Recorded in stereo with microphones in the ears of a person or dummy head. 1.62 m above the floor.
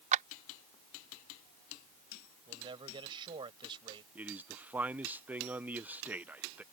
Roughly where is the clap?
Right.